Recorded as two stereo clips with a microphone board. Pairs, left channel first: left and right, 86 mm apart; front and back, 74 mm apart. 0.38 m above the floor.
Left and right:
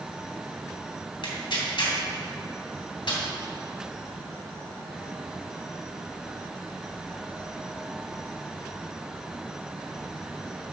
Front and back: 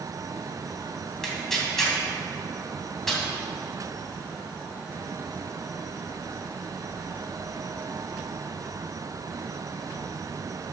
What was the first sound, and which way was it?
Tearing paper, 85° left.